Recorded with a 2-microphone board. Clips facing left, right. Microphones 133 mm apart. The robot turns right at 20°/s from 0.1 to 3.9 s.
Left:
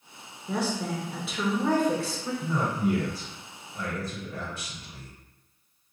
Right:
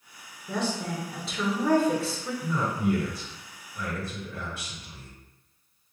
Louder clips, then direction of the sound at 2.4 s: Even; 25° left (ahead or behind).